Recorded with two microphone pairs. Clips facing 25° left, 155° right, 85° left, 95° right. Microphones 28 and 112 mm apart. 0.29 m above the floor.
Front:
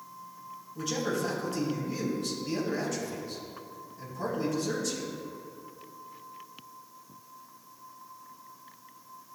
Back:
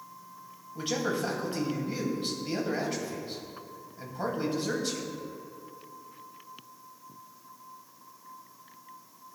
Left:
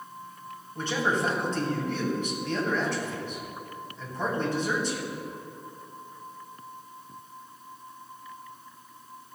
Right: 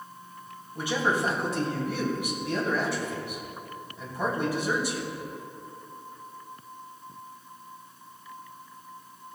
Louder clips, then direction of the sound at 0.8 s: Back 1 dB, right 1 dB; 170° right.